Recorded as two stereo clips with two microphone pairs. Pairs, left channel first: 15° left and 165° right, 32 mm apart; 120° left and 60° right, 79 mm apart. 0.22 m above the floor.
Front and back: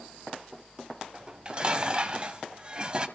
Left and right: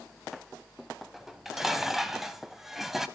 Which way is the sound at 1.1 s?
145° right.